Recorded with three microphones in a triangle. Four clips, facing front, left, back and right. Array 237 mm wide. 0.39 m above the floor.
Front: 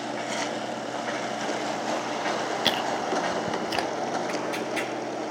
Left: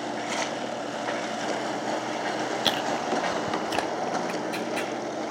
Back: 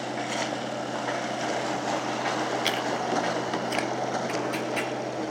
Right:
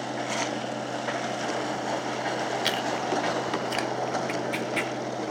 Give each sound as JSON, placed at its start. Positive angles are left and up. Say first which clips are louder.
{"t": 2.6, "sound": "chewing", "louder": "left 1 dB, front 1 dB", "azimuth_deg": 30, "distance_m": 0.7}
{"t": 4.3, "sound": "tearing paper", "louder": "even, even", "azimuth_deg": -115, "distance_m": 3.0}